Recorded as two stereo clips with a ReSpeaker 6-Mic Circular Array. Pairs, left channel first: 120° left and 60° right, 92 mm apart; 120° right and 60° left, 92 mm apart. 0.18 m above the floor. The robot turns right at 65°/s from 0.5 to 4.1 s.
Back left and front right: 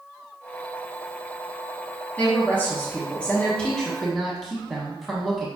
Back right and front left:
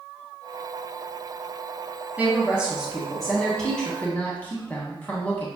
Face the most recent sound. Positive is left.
turn(degrees=-150)